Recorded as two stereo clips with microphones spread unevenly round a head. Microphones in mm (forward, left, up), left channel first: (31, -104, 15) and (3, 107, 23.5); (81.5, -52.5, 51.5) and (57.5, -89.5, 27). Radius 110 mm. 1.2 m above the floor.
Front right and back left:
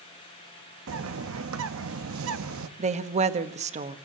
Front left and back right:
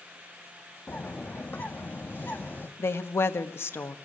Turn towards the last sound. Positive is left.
turn(degrees=40)